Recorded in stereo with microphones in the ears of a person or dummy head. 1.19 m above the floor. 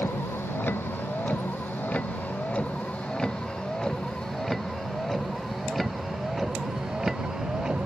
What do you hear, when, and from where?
0.0 s a vehicle: 10° left (ahead or behind); by 7.9 s 10° right (ahead or behind)